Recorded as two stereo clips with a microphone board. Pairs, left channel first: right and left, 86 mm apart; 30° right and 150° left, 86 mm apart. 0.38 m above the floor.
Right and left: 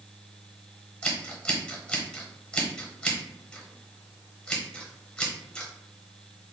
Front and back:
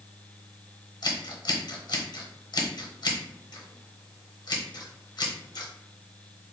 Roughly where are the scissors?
Ahead.